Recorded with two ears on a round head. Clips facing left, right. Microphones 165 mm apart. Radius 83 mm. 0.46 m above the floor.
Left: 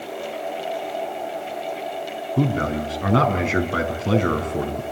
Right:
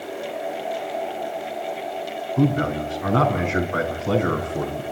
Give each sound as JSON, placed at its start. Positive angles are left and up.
{"t": 2.4, "sound": "a man speaking", "side_deg": 40, "distance_m": 5.0}